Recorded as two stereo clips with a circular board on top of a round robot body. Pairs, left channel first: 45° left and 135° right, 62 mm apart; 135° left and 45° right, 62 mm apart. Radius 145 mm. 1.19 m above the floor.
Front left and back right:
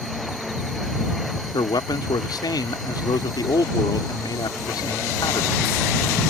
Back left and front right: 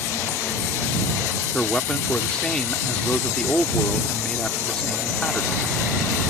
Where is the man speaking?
55° left.